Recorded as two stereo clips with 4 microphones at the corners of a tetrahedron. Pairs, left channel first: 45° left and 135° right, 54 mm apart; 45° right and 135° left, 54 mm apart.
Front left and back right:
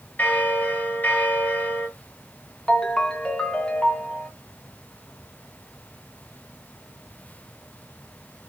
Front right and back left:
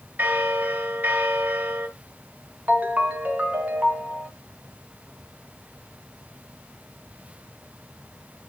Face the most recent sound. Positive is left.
turn(degrees=105)